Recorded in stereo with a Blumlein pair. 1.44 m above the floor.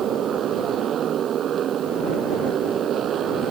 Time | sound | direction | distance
0.0 | a motorcycle | 25° right | ?